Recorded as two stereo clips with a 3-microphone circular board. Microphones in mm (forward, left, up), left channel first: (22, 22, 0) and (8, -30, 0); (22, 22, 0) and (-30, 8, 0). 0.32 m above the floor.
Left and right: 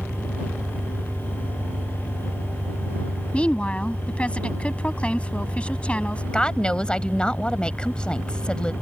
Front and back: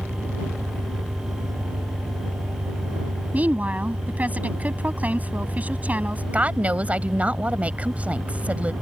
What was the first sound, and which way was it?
An engine running, 155° right.